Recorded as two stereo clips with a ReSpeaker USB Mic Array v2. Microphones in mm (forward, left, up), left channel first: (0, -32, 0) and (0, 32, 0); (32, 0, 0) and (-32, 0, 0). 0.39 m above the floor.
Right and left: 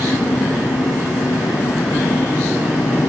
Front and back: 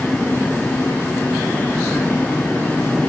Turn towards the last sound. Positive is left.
turn(degrees=-75)